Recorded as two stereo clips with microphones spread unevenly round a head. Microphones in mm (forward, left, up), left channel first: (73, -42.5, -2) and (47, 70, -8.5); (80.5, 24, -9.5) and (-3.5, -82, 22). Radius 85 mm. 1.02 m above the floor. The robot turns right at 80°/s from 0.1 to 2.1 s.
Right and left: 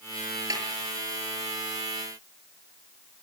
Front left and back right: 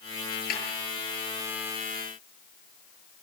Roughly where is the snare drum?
Ahead left.